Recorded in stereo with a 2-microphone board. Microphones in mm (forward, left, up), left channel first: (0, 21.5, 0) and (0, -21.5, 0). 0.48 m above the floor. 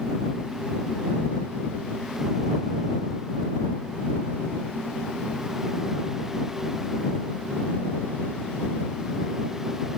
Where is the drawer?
I don't hear a drawer.